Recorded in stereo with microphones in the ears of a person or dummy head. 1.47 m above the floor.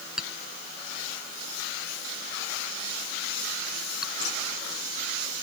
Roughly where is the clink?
Centre.